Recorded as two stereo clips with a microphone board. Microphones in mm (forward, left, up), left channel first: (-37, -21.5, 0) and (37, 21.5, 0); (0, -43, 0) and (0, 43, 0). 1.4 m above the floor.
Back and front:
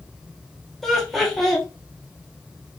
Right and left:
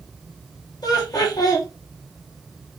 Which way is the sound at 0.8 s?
65° right.